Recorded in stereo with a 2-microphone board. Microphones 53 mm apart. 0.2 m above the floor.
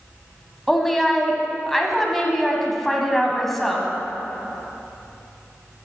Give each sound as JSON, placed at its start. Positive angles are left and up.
{"t": 0.7, "sound": "a woman speaking", "side_deg": 5, "distance_m": 1.1}